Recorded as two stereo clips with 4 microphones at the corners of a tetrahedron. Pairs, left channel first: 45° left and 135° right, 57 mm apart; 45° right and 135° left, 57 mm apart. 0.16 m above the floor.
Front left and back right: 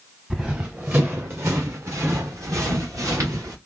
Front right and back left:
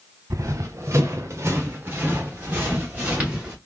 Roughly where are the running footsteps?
Behind left.